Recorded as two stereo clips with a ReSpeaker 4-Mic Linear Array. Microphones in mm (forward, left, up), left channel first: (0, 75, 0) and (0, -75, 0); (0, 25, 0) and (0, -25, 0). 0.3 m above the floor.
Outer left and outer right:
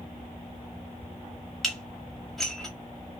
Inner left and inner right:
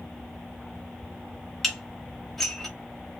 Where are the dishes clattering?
Centre (ahead or behind), 0.8 m.